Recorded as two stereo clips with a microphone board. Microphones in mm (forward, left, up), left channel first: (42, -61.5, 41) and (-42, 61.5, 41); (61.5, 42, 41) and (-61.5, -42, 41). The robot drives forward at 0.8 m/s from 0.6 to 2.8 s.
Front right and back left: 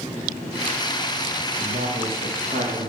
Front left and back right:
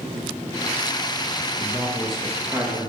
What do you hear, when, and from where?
1.6 s a man speaking: 105° left, 1.0 m; by 2.9 s 140° left, 1.5 m